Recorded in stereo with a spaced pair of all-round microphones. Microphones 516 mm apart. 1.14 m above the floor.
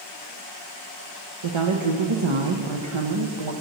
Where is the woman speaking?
70° right (ahead or behind), 0.8 m.